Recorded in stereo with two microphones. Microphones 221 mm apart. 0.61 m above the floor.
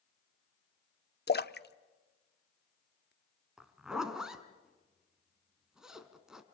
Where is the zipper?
5° right (ahead or behind), 2.0 m.